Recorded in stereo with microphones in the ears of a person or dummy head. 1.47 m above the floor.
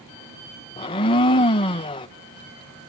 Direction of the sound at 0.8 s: 25° left (ahead or behind).